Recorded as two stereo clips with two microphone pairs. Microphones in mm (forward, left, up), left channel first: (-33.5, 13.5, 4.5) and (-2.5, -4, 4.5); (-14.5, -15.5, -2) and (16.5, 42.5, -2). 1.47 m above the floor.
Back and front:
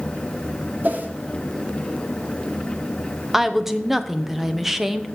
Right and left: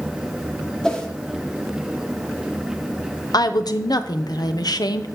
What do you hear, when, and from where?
0.8 s a whoosh: 40° right, 1.5 m
3.3 s a woman speaking: 110° right, 0.9 m